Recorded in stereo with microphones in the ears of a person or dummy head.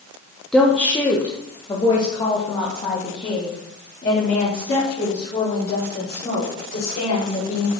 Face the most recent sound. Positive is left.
turn(degrees=55)  # may be behind; listen again after turning